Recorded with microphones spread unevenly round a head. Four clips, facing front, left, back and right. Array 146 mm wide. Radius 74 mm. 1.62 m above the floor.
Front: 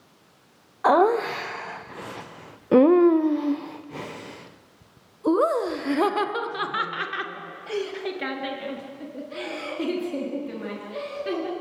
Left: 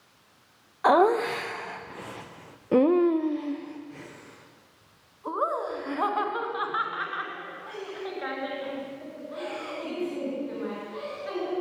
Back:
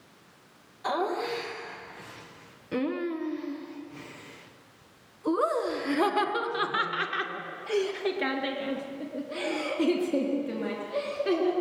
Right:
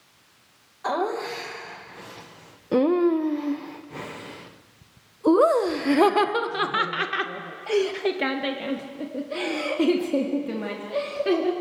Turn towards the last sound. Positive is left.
turn(degrees=-110)